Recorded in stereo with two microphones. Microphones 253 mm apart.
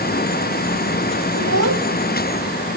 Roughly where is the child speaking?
Right.